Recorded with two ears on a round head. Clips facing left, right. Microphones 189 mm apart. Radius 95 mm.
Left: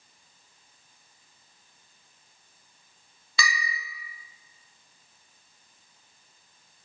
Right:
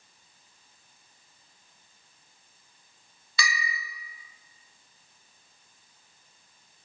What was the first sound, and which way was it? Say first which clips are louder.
A bell: left 1 dB; 75° left (ahead or behind).